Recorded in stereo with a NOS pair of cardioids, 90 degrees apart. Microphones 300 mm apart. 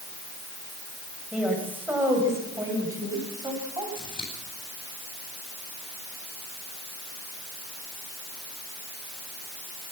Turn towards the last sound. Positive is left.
turn(degrees=15)